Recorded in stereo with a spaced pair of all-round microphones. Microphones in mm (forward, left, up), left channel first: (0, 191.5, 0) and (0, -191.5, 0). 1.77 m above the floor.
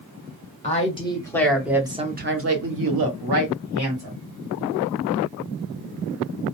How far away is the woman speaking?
About 1.3 m.